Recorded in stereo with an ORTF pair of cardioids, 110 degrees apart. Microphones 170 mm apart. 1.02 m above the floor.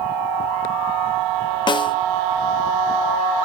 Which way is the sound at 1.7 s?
30° left.